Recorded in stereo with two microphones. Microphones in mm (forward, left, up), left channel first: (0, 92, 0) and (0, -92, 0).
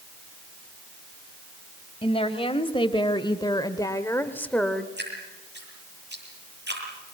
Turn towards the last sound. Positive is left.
turn(degrees=-70)  # may be behind; listen again after turning